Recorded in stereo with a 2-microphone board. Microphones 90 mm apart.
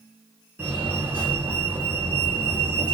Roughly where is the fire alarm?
Right.